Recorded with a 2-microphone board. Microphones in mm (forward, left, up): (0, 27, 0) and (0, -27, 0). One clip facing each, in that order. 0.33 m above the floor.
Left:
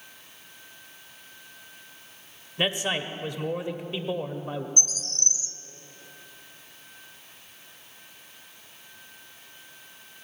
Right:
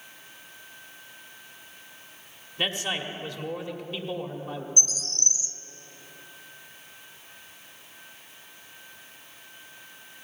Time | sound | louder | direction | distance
2.6 | a man speaking | left 2 dB | 20° left (ahead or behind) | 1.0 m
4.8 | a bird | even | 35° left (ahead or behind) | 0.5 m